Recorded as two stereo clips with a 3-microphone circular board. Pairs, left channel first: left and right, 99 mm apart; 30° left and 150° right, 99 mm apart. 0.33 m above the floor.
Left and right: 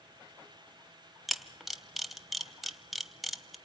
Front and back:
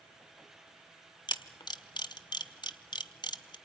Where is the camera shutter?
Straight ahead, 0.8 m.